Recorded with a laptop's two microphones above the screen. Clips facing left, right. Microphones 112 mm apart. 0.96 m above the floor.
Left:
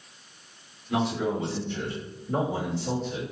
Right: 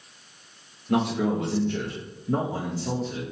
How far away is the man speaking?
About 0.8 m.